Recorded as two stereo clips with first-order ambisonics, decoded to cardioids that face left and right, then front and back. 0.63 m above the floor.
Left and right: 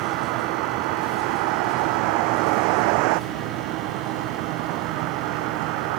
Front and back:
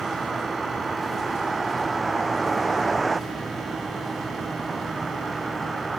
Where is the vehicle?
100° right.